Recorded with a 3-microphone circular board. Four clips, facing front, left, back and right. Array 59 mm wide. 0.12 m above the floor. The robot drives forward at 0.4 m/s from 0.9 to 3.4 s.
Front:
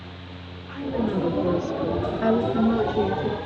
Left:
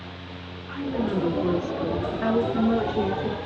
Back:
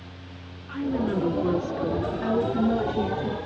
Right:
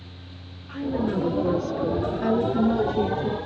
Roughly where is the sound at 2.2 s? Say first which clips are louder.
Even, front 4 dB; ahead left.